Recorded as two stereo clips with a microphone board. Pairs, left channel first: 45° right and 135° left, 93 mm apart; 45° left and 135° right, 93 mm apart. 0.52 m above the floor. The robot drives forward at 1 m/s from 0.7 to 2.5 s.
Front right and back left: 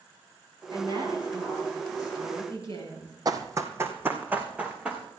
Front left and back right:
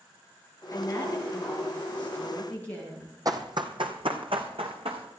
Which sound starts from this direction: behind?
Running footsteps, at 3.2 s.